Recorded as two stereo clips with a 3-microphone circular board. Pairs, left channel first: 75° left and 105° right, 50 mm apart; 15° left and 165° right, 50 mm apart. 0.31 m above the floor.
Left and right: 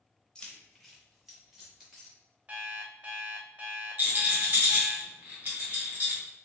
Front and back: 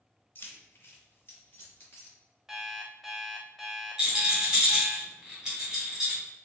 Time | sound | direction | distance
0.3 | keys jangling | 10° left | 0.7 m
2.5 | an alarm clock | 90° right | 0.7 m
4.0 | a rattle | 90° right | 1.6 m